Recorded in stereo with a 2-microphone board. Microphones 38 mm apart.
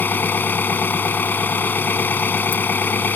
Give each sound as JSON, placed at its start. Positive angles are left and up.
{"t": 0.0, "sound": "an engine running", "side_deg": 60}